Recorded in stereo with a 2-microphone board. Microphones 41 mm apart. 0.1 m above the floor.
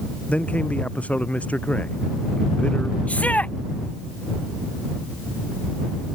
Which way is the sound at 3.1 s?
35° left (ahead or behind).